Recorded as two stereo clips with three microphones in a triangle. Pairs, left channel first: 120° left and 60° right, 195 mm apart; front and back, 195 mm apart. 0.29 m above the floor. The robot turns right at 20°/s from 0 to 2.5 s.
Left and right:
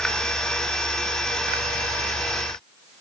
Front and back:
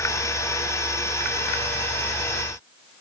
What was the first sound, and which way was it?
Only background noise.